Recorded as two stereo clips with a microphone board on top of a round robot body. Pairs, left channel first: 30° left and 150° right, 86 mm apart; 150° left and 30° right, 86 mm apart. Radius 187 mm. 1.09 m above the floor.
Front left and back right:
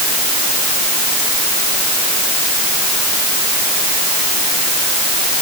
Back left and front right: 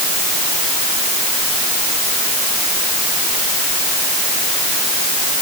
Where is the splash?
No splash in this recording.